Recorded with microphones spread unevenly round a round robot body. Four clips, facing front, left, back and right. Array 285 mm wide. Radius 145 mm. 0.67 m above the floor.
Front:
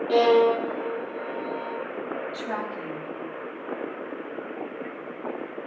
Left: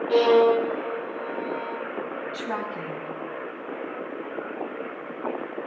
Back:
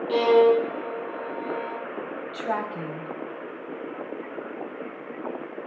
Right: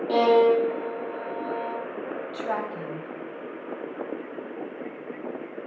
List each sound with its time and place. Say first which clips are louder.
0.1 s a violin: left 1 dB, back 1 dB; 85° right, 8.5 m
2.3 s a woman speaking: right 3 dB, back 2 dB; 160° right, 3.5 m